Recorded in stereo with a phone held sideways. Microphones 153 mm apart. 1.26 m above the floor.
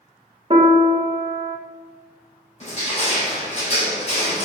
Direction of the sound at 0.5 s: 35° right (ahead or behind).